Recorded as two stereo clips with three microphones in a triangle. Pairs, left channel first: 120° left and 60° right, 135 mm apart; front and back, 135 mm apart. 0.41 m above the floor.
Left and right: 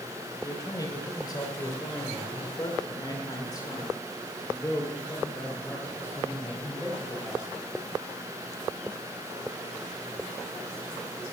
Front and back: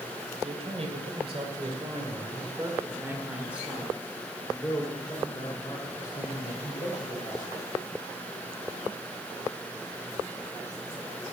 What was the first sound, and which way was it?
A man speaking, 175° left.